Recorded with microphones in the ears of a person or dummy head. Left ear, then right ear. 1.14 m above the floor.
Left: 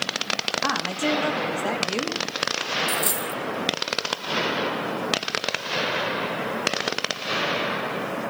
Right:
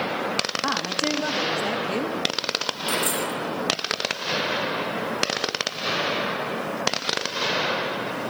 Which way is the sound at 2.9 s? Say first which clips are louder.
Right 1 dB; 15° left (ahead or behind).